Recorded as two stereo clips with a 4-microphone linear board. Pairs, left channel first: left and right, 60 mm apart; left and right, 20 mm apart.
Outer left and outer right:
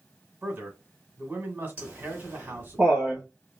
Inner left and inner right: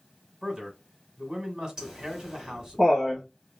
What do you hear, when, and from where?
0.4 s a man speaking: 35° right (ahead or behind), 1.4 m
1.8 s laughter: 30° right (ahead or behind), 1.6 m